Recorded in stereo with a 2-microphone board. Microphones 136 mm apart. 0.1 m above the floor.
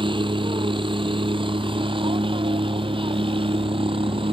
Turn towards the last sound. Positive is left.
turn(degrees=-45)  # may be behind; listen again after turning